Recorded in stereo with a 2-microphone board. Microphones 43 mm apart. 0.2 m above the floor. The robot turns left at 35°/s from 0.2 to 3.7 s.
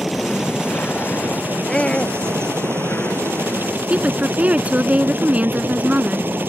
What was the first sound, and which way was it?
A helicopter, 5° right.